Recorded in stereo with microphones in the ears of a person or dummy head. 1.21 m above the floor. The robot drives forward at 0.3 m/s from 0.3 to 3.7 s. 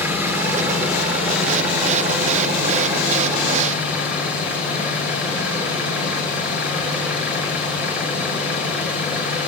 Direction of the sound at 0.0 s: 10° right (ahead or behind).